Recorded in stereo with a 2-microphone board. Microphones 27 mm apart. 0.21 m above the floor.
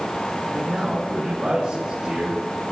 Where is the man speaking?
15° right (ahead or behind), 1.7 m; by 2.7 s 50° right (ahead or behind), 2.5 m.